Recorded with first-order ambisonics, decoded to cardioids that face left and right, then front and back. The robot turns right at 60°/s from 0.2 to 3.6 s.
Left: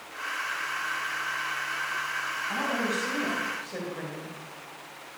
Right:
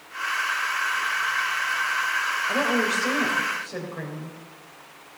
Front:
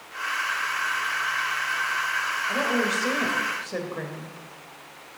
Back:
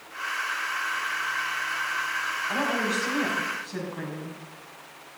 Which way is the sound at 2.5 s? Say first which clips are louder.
Right 5 dB, front 2 dB; 80° right.